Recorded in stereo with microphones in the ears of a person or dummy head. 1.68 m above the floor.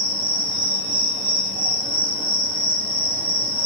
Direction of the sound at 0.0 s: 50° right (ahead or behind).